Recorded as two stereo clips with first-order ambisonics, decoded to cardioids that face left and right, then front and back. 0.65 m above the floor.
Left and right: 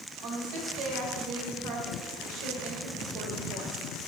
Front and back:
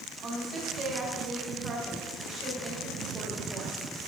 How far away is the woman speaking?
About 3 m.